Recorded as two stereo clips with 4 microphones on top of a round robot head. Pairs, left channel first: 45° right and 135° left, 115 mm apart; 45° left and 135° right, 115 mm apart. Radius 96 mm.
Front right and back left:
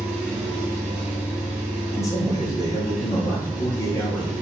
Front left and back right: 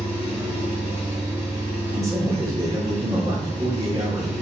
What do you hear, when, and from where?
0.0 s an engine running: 125° left, 1.1 m
1.9 s a man speaking: 90° right, 1.0 m